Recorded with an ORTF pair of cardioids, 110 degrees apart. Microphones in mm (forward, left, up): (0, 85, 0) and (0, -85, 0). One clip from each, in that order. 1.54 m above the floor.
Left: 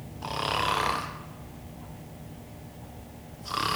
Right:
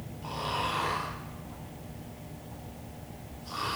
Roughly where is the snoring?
Ahead left.